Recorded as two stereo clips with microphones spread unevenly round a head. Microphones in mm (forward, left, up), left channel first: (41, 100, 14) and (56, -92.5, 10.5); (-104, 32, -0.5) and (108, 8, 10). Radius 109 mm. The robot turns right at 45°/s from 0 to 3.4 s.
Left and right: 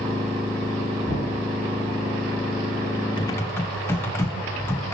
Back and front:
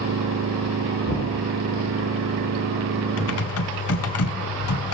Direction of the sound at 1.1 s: 155° left.